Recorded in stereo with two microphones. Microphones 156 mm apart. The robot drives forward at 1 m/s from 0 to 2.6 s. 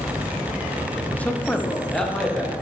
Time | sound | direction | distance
1.1 | a man speaking | 10° left (ahead or behind) | 0.6 m